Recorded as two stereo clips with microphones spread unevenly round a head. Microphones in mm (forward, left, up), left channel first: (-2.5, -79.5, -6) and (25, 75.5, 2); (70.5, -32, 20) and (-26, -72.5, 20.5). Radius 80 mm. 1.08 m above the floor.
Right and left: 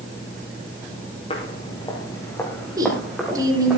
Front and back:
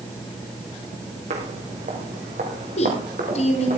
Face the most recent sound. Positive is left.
turn(degrees=10)